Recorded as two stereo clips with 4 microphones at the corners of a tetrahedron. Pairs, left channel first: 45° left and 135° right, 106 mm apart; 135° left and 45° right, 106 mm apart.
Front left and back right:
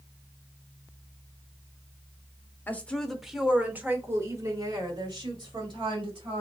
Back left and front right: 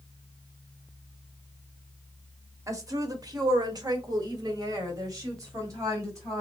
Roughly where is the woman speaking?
Ahead.